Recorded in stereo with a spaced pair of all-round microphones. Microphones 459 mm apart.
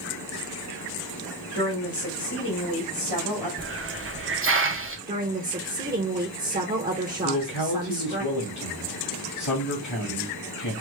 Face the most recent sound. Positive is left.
turn(degrees=75)  # may be behind; listen again after turning